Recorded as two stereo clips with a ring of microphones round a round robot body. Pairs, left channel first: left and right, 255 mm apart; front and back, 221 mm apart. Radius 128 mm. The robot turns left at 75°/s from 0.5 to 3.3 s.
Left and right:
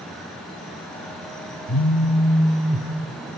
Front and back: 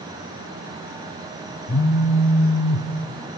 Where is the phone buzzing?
55° left, 1.0 m; by 2.9 s 35° right, 1.0 m.